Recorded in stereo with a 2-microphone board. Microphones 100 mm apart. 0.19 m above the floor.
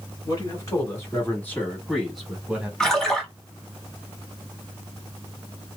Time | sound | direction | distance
0.2 | a man speaking | 35° left (ahead or behind) | 1.7 m
2.8 | a splash | 5° left (ahead or behind) | 1.1 m